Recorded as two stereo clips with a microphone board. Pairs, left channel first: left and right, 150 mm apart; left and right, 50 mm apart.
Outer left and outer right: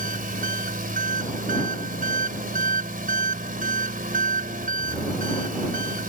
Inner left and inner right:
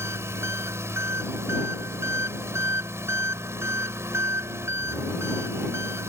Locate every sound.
0.0 s an engine running: 65° right (ahead or behind)